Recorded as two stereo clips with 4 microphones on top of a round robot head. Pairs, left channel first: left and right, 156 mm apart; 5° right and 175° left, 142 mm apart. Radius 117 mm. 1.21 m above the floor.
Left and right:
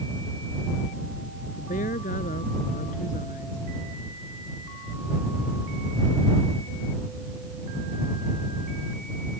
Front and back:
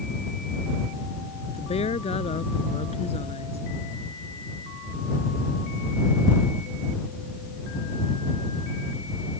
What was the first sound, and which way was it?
A woman speaking, 40° left.